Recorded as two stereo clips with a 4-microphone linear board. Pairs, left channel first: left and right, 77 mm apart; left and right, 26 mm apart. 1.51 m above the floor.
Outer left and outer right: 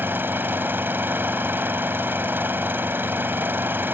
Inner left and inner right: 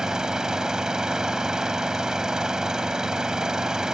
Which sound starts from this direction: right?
An engine running, at 0.0 s.